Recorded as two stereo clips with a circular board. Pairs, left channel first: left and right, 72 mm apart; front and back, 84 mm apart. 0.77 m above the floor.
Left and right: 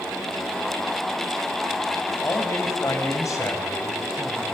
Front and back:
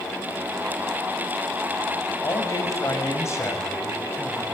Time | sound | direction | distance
2.2 | a man speaking | 45° left | 5.5 m